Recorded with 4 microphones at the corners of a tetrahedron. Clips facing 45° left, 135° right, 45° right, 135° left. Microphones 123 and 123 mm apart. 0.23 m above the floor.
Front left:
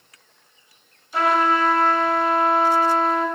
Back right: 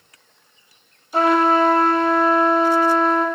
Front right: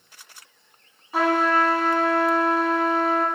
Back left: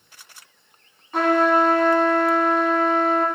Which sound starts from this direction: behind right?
A trumpet, at 1.1 s.